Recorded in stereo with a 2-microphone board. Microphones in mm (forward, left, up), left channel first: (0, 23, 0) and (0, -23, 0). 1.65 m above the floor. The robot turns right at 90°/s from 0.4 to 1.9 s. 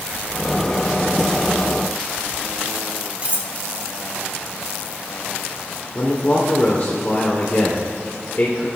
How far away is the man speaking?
About 1.1 m.